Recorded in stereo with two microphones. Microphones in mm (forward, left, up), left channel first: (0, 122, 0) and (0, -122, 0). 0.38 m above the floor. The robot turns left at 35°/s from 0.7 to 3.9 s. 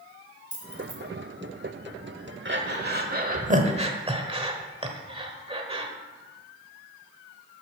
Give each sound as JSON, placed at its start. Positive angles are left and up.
{"t": 0.5, "sound": "keys jangling", "side_deg": 55, "distance_m": 2.5}
{"t": 2.5, "sound": "breathing", "side_deg": -45, "distance_m": 1.1}